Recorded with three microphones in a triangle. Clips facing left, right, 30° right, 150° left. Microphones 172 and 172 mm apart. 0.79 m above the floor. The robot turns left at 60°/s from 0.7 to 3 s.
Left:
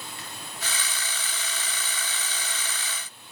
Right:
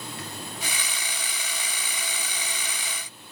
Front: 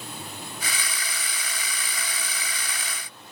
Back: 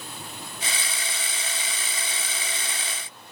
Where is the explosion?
No explosion in this recording.